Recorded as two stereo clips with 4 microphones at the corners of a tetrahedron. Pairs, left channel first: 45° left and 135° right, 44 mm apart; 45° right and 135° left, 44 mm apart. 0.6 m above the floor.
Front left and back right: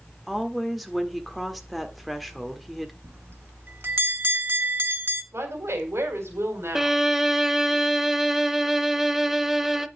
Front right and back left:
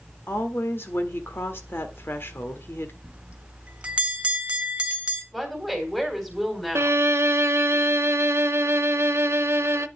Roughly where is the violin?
Behind left.